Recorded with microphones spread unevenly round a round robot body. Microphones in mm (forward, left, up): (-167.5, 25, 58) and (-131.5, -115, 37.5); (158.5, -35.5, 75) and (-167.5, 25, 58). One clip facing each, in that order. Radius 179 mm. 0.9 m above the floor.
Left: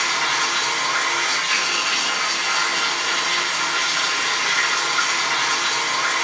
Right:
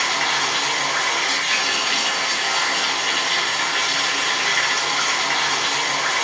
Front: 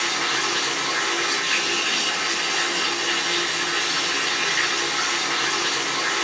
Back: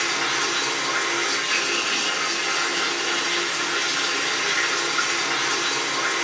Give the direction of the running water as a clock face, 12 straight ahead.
3 o'clock.